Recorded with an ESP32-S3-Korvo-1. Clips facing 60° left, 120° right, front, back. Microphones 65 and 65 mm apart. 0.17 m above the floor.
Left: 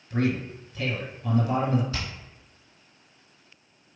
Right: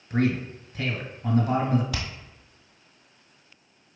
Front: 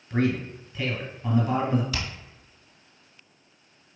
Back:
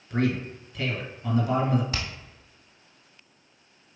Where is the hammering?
120° right, 1.8 m.